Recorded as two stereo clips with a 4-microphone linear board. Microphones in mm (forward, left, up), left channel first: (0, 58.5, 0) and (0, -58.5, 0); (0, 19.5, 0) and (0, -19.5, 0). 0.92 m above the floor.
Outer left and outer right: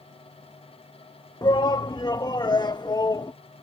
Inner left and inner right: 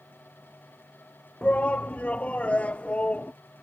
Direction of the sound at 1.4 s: 35° left (ahead or behind).